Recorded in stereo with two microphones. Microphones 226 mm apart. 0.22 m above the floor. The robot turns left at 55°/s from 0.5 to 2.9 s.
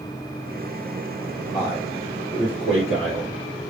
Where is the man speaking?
15° right (ahead or behind), 3 m; by 3.4 s 65° right (ahead or behind), 3 m.